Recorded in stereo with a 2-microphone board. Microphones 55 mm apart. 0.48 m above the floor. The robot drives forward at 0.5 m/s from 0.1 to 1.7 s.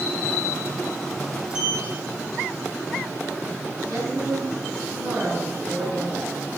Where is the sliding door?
15° right (ahead or behind), 3 m.